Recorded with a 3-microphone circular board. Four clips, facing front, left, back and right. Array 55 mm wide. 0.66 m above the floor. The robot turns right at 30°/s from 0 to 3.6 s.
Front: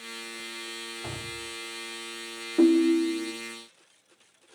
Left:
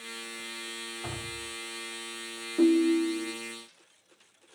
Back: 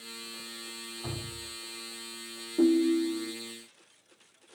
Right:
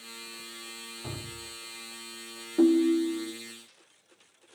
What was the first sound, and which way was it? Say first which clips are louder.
Dripping: left 1 dB, front 1 dB; 100° left.